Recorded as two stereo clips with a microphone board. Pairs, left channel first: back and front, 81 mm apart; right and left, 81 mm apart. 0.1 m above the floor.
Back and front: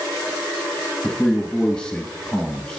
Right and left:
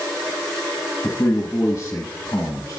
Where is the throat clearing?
No throat clearing in this recording.